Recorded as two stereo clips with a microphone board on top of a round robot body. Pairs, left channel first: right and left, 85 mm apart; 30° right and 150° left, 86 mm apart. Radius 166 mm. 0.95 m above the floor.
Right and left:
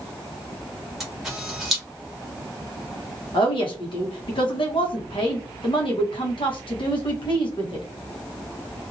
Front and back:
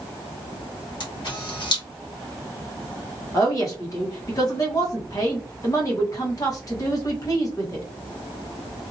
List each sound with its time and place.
1.0 s a camera shutter: 5° left, 1.1 m
3.3 s a woman speaking: 80° right, 1.3 m